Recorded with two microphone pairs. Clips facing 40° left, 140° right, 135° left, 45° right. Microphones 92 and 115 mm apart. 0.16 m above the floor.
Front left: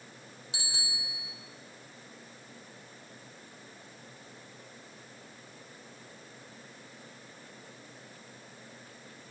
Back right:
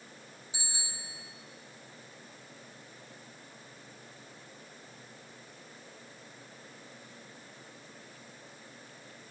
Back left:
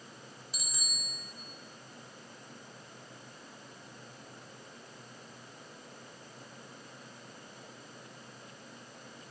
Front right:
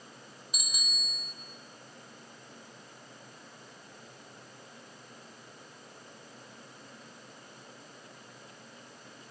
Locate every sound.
0.5 s a bicycle bell: 30° left, 3.5 m